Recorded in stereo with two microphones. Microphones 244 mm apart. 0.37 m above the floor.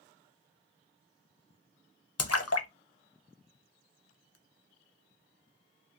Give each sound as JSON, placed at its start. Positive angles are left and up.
{"t": 2.2, "sound": "a splash", "side_deg": 75, "distance_m": 0.6}